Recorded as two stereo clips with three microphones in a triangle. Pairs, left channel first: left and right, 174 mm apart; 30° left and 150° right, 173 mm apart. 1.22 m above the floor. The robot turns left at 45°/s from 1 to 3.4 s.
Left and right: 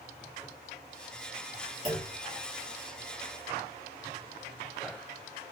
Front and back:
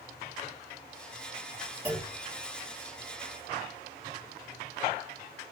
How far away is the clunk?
About 1.7 m.